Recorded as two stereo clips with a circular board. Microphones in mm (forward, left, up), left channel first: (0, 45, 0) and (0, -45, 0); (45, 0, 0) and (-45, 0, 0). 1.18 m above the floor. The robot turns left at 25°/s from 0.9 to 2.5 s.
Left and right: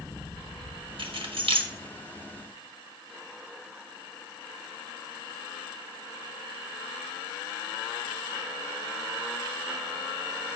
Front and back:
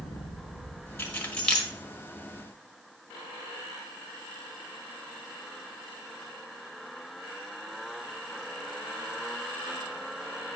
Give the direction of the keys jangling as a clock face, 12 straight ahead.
2 o'clock.